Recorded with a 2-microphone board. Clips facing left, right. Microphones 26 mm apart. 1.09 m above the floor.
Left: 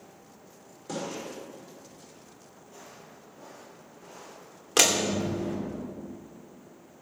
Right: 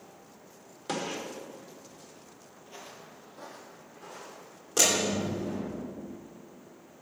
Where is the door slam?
80° left, 2.5 m.